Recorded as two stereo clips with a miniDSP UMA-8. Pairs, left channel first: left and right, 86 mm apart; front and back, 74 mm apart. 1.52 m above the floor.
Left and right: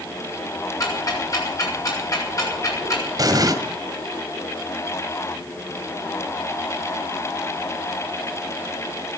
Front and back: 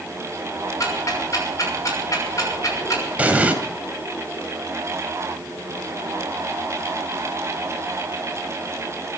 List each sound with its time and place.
0.8 s ticking: 45° left, 6 m
3.2 s an explosion: 115° right, 2.0 m